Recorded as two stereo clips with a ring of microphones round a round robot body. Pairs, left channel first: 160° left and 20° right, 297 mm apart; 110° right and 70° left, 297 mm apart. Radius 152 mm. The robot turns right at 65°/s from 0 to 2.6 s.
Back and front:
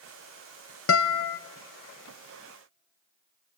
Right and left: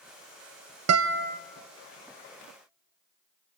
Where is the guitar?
105° left, 0.6 m; by 1.4 s 140° left, 0.6 m.